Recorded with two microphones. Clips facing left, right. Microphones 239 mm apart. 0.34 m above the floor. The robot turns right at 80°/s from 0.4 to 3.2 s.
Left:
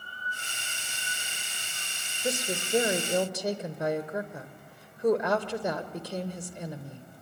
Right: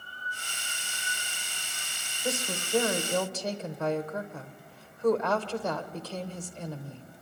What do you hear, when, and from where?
2.2 s a woman speaking: 20° left (ahead or behind), 0.9 m; by 7.0 s 15° left (ahead or behind), 0.9 m